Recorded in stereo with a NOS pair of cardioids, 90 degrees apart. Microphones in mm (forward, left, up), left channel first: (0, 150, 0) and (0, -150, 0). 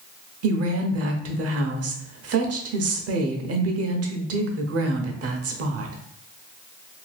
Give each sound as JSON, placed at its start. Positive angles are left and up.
{"t": 0.4, "sound": "a woman speaking", "azimuth_deg": -55, "distance_m": 0.8}